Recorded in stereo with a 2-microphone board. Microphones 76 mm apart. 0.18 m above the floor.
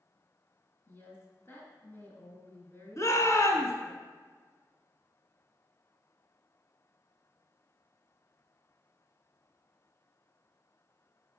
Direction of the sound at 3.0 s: 45° left (ahead or behind).